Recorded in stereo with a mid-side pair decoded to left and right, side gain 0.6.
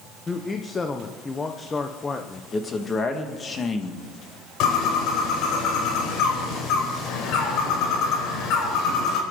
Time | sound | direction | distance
0.3 | a man speaking | 25° left | 1.2 m
2.5 | a man speaking | 30° left | 2.5 m
4.6 | a bird | 65° left | 4.5 m